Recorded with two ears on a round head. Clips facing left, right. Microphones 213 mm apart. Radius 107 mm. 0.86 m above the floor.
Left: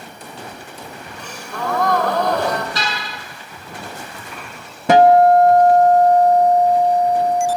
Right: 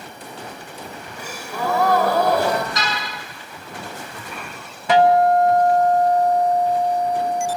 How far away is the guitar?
About 1.2 m.